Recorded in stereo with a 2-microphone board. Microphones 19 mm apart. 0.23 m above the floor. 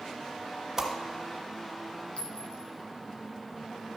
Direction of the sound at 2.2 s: 70° left (ahead or behind).